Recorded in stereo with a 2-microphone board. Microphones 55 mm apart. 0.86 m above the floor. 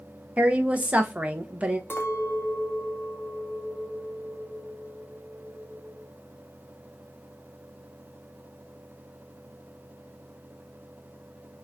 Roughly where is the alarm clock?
I don't hear an alarm clock.